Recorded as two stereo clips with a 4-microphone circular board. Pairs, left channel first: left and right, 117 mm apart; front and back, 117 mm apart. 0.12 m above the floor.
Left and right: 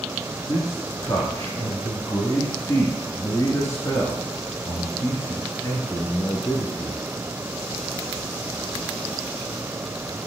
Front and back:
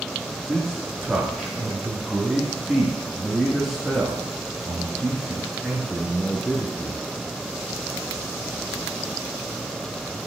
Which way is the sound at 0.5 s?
100° left.